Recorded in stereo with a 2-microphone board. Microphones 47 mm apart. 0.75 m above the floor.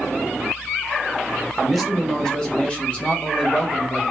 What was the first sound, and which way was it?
A man speaking, centre (ahead or behind).